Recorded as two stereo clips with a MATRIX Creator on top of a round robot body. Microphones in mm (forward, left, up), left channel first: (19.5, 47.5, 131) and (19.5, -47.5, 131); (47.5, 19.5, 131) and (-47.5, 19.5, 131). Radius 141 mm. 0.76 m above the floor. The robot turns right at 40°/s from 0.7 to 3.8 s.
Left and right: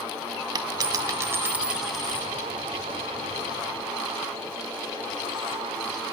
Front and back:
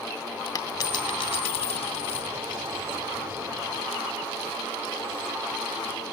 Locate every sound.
0.6 s a dropped coin: 50° right, 2.5 m; by 2.3 s 15° left, 2.5 m